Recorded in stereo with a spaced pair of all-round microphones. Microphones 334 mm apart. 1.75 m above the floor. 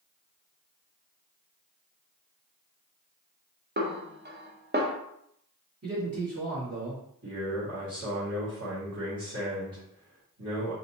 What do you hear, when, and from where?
3.8 s a snare drum: 30° right (ahead or behind), 0.7 m
5.8 s a man speaking: 45° right (ahead or behind), 2.5 m
7.2 s a man speaking: 50° right (ahead or behind), 2 m